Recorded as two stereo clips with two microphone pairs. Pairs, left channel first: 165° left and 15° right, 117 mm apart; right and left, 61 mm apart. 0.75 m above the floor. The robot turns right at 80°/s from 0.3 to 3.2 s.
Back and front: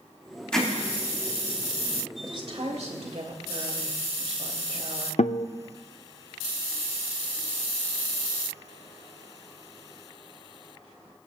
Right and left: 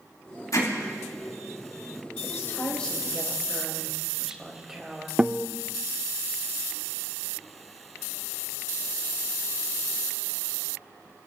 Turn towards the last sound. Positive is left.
turn(degrees=160)